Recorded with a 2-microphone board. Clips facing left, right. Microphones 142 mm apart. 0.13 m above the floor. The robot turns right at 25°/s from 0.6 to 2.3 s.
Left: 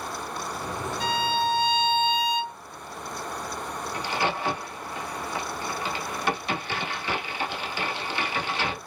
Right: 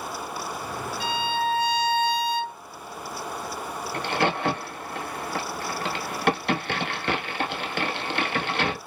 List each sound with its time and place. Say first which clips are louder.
1.0 s a violin: left 1 dB; 120° left, 1.2 m; by 2.6 s 155° left, 1.2 m
3.9 s a crack: right 3 dB; 65° right (ahead or behind), 0.9 m